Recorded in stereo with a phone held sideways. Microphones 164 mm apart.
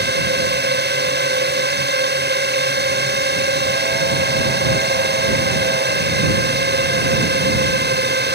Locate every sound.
0.0 s a drone: 75° right (ahead or behind)